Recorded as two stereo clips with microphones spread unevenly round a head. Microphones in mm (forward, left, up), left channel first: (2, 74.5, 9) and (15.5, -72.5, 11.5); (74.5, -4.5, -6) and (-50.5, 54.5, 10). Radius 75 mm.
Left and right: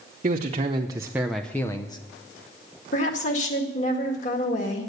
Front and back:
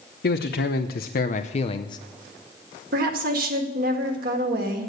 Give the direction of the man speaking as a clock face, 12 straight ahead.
1 o'clock.